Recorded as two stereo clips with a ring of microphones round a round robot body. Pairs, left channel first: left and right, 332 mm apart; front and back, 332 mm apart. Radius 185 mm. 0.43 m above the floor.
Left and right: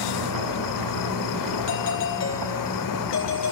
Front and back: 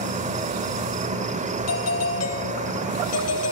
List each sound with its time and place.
0.0 s an insect: 110° left, 0.9 m
1.7 s a doorbell: 35° left, 3 m